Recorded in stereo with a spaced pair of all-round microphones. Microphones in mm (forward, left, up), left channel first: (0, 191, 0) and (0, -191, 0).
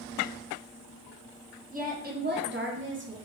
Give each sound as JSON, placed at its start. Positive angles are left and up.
{"t": 1.7, "sound": "a woman speaking", "side_deg": -20, "distance_m": 0.9}